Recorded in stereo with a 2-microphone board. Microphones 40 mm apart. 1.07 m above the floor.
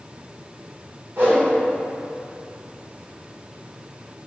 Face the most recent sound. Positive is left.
turn(degrees=-60)  # may be behind; listen again after turning